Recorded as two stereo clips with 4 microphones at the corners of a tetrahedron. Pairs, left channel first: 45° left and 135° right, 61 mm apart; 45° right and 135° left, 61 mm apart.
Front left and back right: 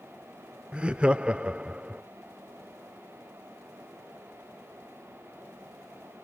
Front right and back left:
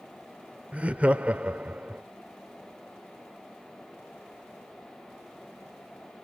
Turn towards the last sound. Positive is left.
turn(degrees=175)